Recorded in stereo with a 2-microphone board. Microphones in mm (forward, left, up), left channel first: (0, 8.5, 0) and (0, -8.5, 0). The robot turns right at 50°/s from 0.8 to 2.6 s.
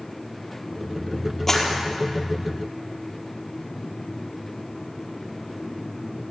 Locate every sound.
1.5 s a clap: 20° left (ahead or behind), 4.5 m; by 1.7 s 10° left (ahead or behind), 4.5 m